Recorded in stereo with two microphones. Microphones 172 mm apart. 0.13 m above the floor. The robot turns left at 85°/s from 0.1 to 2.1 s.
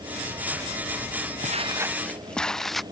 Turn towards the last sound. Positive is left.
turn(degrees=0)  # may be behind; listen again after turning